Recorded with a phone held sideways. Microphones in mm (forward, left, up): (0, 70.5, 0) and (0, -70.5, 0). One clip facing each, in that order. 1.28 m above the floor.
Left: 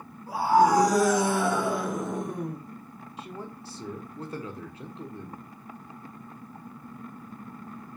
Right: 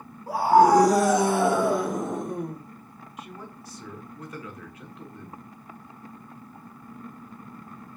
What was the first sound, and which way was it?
A scream, 80° right.